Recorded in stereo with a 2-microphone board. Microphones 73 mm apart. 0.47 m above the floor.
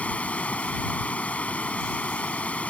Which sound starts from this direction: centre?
Running water, at 0.0 s.